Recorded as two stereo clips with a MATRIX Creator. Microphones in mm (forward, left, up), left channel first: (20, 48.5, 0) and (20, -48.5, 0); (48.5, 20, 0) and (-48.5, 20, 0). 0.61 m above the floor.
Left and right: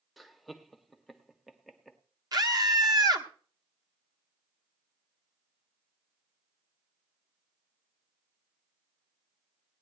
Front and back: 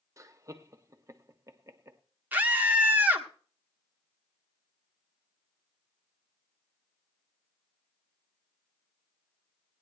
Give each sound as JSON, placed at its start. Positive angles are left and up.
{"t": 0.2, "sound": "laughter", "azimuth_deg": -175, "distance_m": 0.9}
{"t": 2.3, "sound": "a scream", "azimuth_deg": -110, "distance_m": 1.5}